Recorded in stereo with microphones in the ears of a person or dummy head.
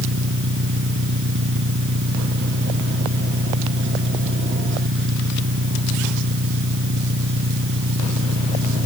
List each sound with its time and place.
0.0 s an engine running: 70° right (ahead or behind)